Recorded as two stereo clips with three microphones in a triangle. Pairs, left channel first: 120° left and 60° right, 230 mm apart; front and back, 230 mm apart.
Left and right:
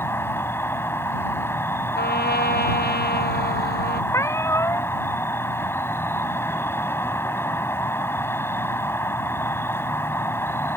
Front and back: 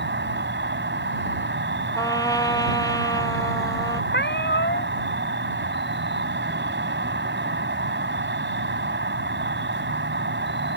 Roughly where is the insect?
Behind.